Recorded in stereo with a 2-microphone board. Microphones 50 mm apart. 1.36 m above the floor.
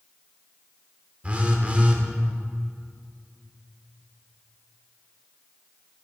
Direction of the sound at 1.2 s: 30° right (ahead or behind).